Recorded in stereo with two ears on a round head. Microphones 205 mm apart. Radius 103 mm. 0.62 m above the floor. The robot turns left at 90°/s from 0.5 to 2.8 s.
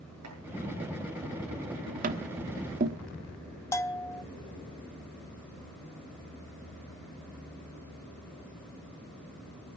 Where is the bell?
15° left (ahead or behind), 0.8 m.